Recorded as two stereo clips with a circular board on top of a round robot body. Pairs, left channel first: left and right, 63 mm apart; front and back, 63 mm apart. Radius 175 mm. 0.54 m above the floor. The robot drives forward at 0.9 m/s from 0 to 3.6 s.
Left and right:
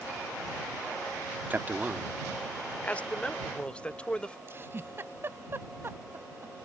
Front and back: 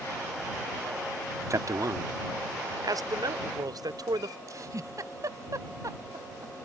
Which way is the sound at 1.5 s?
150° right.